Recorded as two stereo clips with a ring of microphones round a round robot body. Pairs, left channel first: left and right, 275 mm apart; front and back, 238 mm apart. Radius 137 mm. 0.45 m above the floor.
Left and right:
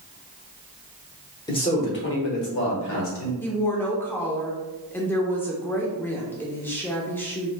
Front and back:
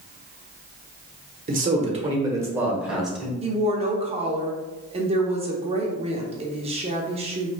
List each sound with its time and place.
1.5 s a man speaking: 155° left, 1.0 m; by 3.3 s 90° left, 2 m
3.4 s a woman speaking: 160° left, 0.7 m